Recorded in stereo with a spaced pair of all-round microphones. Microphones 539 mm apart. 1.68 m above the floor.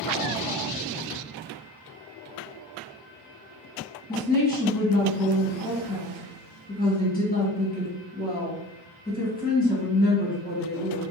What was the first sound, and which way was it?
A woman speaking, 15° left (ahead or behind).